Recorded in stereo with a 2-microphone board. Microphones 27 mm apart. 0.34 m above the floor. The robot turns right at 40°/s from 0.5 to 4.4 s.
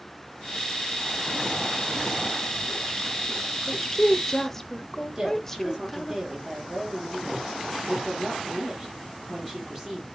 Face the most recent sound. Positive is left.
turn(degrees=-25)  # may be behind; listen again after turning